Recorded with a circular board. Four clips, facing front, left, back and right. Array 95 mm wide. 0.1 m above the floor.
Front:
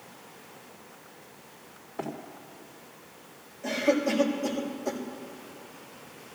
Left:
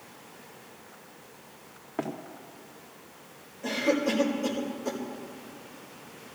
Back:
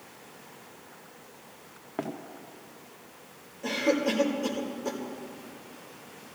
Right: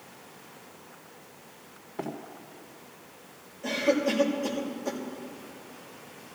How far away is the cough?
About 5 m.